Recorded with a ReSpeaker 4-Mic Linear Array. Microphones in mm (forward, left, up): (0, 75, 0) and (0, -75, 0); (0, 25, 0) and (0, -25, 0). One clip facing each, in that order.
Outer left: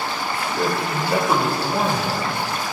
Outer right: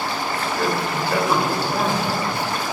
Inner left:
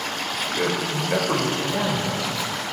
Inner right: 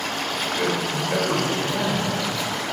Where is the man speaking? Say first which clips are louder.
Even, even; 15° left (ahead or behind), 0.9 m.